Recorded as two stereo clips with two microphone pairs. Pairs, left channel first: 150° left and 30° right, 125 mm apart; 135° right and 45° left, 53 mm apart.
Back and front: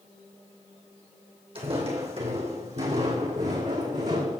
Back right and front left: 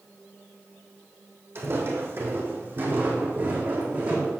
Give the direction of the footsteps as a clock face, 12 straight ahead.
12 o'clock.